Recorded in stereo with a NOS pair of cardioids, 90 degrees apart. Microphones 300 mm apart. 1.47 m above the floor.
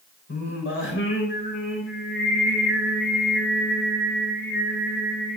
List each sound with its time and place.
0.3 s singing: 50° left, 4 m